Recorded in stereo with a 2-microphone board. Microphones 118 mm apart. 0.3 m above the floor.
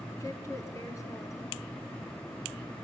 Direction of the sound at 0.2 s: 25° left (ahead or behind).